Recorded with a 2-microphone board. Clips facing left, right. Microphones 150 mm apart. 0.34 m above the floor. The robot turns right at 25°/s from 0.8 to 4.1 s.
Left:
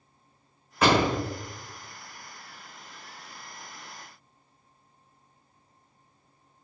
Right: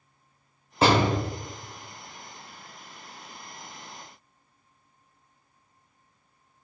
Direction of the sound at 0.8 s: 30° right (ahead or behind).